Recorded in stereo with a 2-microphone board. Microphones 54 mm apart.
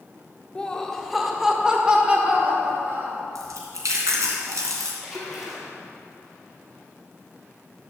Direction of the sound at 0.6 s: 20° left (ahead or behind).